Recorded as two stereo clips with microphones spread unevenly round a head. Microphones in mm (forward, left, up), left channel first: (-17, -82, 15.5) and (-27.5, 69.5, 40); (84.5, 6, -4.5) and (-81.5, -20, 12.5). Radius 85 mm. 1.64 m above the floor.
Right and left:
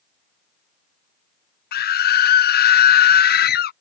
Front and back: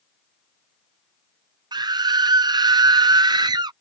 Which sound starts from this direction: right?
A scream, at 1.7 s.